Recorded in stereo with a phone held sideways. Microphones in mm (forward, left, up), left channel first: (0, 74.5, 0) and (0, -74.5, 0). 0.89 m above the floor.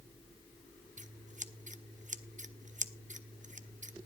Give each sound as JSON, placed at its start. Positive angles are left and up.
{"t": 1.0, "sound": "scissors", "side_deg": -60, "distance_m": 0.6}